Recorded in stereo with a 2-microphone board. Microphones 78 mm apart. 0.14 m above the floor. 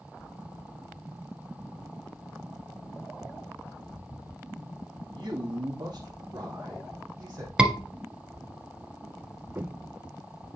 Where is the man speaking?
60° right (ahead or behind), 3 m; by 7.5 s 45° right (ahead or behind), 4 m.